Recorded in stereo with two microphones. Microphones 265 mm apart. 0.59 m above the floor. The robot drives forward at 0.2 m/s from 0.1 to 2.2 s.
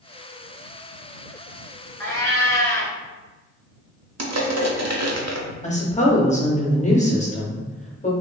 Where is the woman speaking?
25° left (ahead or behind), 0.6 m.